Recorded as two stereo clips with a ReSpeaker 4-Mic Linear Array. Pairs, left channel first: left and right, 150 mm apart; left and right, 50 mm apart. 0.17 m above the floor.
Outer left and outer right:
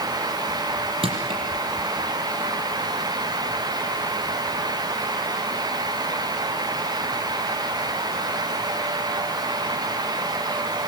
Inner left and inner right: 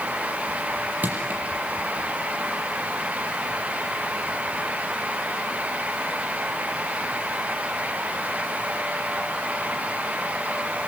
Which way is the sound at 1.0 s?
40° right (ahead or behind).